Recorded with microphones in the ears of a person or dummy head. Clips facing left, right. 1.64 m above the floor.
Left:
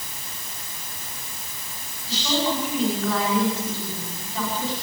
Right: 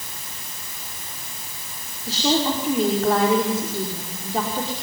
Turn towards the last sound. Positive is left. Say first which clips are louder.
# right 3 dB
turn(degrees=-55)  # may be behind; listen again after turning